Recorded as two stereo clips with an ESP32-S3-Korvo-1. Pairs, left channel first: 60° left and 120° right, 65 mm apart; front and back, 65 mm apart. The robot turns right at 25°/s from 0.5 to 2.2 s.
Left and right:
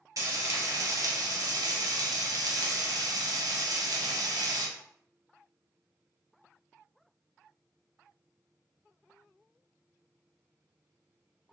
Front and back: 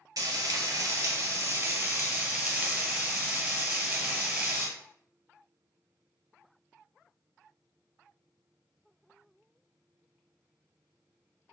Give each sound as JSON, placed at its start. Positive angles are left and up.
{"t": 0.2, "sound": "frying", "azimuth_deg": -150, "distance_m": 1.1}